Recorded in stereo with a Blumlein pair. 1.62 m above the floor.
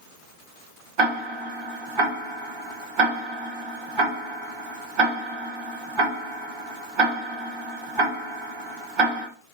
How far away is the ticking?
About 1.4 m.